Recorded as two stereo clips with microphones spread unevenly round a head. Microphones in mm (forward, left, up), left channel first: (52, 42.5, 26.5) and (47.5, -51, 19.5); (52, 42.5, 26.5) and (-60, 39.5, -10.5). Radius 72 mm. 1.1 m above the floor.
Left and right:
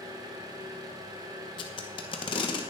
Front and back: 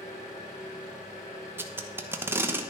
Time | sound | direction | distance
0.0 | an engine running | 45° right | 2.5 m
1.6 | tape being pulled | 120° left | 1.1 m